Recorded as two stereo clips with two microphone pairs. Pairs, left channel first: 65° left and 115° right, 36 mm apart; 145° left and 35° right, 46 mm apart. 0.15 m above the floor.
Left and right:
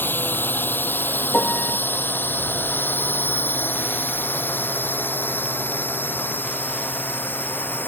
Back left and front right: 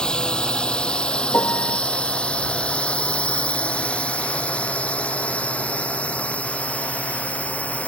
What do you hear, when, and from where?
0.0 s a drone: 75° left; by 7.9 s 85° left
1.3 s a piano: 110° left